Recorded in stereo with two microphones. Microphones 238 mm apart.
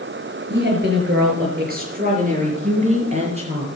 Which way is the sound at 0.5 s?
50° right (ahead or behind).